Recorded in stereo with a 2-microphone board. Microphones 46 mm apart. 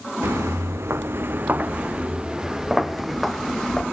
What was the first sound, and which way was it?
Footsteps, 85° right.